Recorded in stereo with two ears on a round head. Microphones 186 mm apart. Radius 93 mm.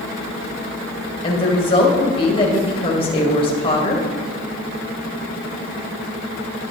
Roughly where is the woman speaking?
Left.